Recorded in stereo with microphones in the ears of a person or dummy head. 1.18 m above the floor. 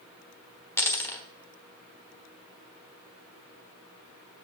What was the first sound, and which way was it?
A dropped coin, 10° left (ahead or behind).